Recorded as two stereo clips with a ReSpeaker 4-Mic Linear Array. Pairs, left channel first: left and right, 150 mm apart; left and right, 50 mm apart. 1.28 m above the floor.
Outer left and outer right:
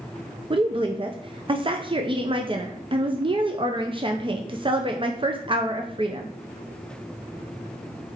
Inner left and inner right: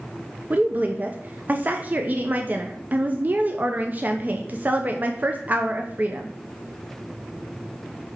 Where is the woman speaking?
35° right (ahead or behind), 0.5 m.